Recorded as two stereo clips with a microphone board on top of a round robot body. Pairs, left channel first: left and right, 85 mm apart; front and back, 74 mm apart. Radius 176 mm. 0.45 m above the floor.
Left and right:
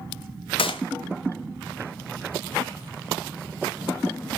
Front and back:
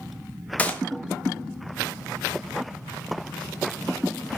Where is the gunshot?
75° left, 0.9 m.